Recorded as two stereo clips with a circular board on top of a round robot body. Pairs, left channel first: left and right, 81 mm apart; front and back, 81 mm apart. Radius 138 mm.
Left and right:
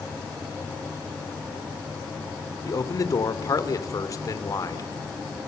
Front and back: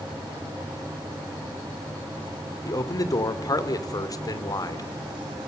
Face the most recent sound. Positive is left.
turn(degrees=45)